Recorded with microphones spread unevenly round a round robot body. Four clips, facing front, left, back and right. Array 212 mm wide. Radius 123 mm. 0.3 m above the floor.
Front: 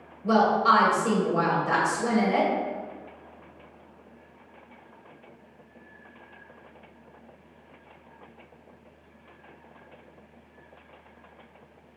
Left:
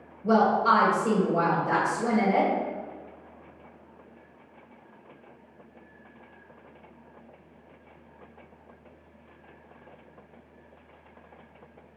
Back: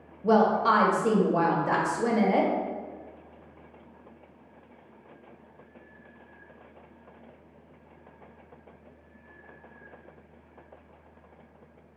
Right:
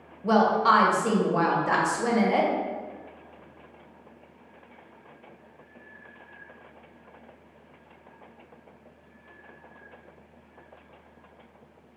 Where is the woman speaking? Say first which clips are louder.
Right 1 dB, front 1 dB; 175° right, 1.0 m.